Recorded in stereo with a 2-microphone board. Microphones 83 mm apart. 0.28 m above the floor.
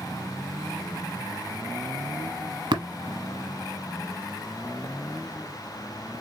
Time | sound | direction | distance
2.7 | tapping | 70° right (ahead or behind) | 1.1 m